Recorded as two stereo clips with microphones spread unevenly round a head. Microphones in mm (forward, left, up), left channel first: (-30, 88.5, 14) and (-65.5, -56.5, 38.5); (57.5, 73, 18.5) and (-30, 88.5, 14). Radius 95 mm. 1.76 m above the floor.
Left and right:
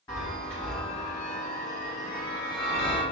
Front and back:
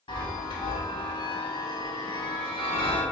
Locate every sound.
0.1 s a chime: 5° left, 2.5 m